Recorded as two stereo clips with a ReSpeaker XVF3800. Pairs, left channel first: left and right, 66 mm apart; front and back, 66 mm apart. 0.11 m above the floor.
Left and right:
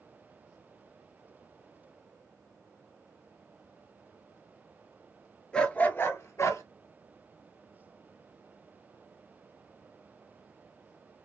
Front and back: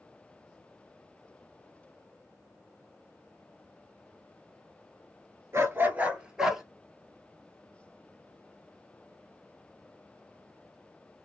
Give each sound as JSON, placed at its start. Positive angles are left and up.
{"t": 5.5, "sound": "a dog barking", "azimuth_deg": 160, "distance_m": 0.7}